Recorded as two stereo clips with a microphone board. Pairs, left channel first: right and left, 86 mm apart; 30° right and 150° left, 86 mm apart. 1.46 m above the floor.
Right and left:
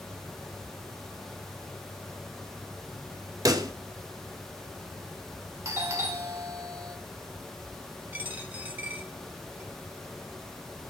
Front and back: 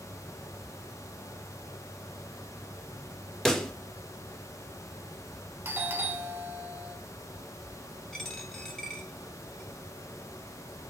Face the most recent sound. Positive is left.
turn(degrees=45)